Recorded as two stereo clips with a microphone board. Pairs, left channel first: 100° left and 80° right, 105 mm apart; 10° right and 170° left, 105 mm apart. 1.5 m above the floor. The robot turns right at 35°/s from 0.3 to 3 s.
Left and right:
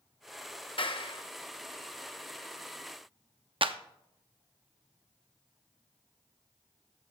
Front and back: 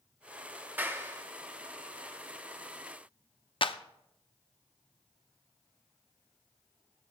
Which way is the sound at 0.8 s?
100° left.